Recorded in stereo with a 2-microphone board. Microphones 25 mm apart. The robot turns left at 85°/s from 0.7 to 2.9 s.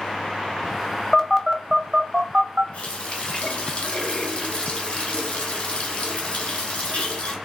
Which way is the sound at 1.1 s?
10° left (ahead or behind).